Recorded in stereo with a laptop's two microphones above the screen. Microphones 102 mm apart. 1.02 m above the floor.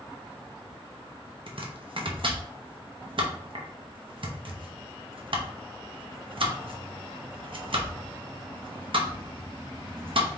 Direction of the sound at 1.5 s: 60° right (ahead or behind).